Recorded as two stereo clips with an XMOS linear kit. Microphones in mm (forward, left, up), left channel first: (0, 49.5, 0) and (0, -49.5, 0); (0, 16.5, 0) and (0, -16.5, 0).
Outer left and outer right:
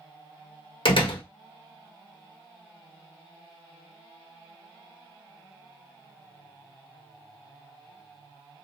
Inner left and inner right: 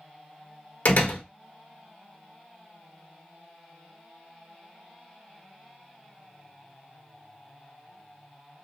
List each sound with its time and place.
0.8 s a door slam: 60° left (ahead or behind), 0.9 m